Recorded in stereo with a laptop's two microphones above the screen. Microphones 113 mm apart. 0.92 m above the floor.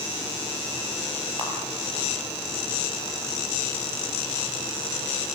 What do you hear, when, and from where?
1.4 s a camera shutter: 45° right (ahead or behind), 6.5 m